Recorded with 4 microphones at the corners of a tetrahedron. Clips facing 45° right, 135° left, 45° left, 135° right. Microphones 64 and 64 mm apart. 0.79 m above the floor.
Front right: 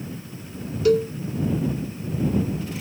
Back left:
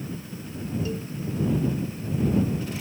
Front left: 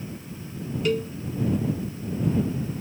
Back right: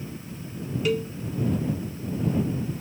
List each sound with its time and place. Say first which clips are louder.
0.8 s a cowbell: front right 14 dB, front left 1 dB; 45° right